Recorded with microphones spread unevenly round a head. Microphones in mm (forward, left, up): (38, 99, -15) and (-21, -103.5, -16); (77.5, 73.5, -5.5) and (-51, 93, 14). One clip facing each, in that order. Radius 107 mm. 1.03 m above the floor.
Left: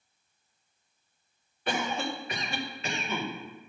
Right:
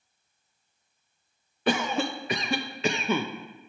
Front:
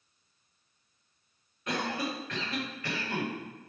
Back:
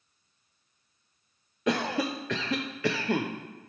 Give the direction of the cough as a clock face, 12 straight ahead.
5 o'clock.